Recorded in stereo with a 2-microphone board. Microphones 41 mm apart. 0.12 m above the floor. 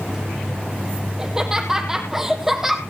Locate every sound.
1.2 s laughter: 15° right (ahead or behind), 4.5 m; by 2.8 s 10° right (ahead or behind), 4 m